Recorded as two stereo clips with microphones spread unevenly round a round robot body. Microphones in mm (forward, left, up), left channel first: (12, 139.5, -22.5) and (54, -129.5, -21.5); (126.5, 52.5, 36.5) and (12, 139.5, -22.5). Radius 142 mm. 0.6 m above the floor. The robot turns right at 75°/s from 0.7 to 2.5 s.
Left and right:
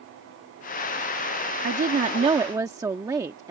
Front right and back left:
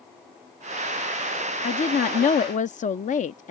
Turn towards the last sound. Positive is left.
turn(degrees=-15)